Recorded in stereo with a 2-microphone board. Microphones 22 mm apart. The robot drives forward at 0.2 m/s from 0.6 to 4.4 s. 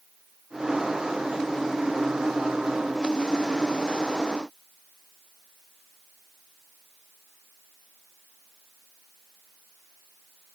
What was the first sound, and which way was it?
Only background noise.